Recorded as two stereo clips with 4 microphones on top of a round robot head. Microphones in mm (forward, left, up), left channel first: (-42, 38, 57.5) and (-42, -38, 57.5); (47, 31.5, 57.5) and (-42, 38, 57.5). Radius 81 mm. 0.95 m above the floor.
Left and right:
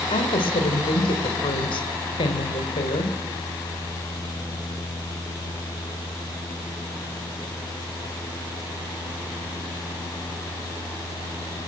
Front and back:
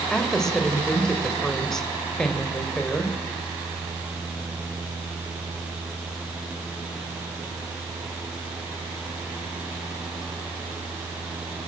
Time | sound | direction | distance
0.1 | a woman speaking | 80° left | 3.5 m